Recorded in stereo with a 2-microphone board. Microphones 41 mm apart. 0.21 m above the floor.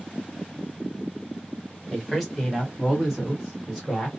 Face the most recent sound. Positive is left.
turn(degrees=0)  # may be behind; listen again after turning